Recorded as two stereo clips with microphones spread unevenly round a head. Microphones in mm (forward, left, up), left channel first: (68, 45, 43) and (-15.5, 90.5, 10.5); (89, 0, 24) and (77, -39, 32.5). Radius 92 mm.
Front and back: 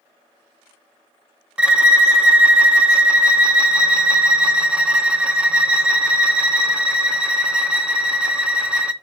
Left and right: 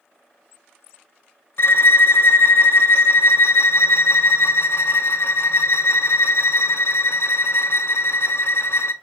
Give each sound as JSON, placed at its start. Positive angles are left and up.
{"t": 1.6, "sound": "a violin", "azimuth_deg": 60, "distance_m": 0.6}